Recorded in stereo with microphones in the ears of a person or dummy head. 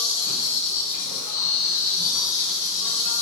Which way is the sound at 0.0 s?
50° left (ahead or behind).